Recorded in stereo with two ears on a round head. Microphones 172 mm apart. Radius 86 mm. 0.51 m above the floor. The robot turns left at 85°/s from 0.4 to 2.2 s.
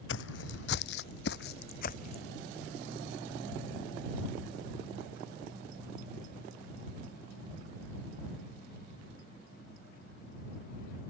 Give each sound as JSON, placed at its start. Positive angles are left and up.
{"t": 0.1, "sound": "footsteps", "side_deg": 70}